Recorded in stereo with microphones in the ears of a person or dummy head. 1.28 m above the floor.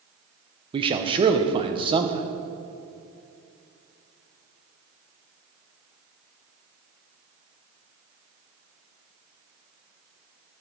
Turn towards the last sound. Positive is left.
turn(degrees=-25)  # may be behind; listen again after turning